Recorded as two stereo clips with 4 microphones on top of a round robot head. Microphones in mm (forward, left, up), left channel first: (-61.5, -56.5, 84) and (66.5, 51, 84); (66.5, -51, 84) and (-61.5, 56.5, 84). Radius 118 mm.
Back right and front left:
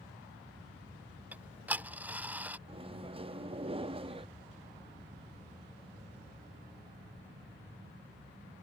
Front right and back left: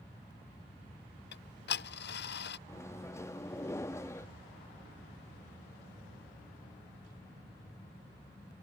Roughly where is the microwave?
Ahead.